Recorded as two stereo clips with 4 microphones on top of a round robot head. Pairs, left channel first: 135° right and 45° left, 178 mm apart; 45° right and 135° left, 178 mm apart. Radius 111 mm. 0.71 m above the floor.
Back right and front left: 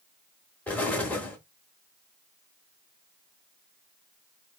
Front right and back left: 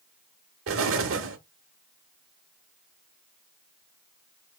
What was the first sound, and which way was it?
An explosion, 145° left.